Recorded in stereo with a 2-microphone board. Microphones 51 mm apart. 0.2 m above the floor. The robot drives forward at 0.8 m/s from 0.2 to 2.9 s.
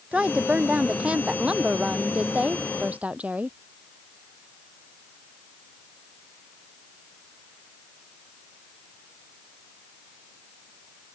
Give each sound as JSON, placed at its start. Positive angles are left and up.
{"t": 0.1, "sound": "a woman speaking", "side_deg": -20}